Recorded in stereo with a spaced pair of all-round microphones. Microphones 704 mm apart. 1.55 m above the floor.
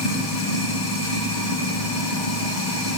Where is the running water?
75° left (ahead or behind), 1.5 m.